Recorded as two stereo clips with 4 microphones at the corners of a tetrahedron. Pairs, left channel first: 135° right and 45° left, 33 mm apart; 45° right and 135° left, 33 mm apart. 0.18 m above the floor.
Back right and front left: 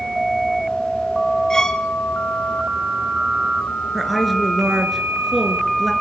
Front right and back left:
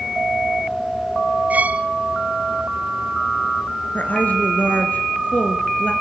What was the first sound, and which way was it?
A violin, 160° left.